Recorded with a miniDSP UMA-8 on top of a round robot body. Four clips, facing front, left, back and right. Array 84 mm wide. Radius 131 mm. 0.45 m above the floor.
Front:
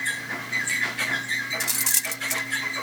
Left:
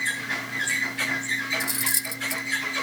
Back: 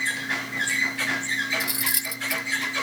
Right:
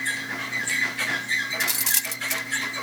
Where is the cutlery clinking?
70° right.